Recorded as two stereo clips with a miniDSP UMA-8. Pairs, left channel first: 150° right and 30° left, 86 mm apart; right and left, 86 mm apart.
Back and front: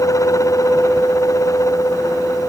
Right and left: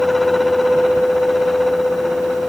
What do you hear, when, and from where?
Only background noise.